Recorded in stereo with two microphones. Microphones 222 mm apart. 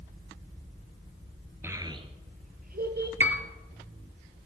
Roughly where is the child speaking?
Centre.